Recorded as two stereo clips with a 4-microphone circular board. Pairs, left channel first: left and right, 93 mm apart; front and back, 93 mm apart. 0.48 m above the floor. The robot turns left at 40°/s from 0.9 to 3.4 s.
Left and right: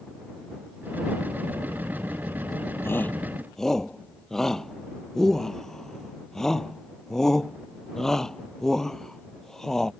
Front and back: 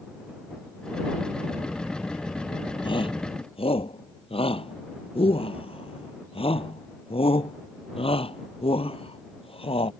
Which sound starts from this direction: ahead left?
A shout, at 2.8 s.